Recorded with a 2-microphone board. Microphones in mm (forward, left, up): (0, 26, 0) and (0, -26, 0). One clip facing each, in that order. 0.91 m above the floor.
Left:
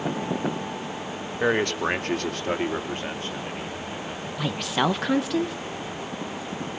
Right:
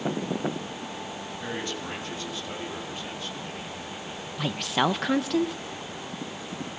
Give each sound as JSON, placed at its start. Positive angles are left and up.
{"t": 1.4, "sound": "a man speaking", "side_deg": 65, "distance_m": 2.0}
{"t": 4.4, "sound": "a woman speaking", "side_deg": 0, "distance_m": 0.8}